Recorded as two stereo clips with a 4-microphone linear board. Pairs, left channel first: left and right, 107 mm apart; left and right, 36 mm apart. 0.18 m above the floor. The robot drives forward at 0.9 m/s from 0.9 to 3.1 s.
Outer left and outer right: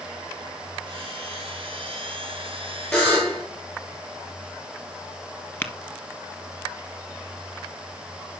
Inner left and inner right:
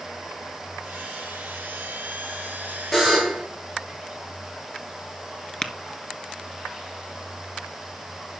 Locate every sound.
2.9 s a buzzer: 10° left (ahead or behind), 8 m
5.6 s tapping: 15° left (ahead or behind), 1.5 m